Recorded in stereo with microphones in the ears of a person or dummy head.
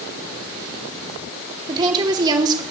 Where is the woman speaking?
20° right (ahead or behind), 2 m.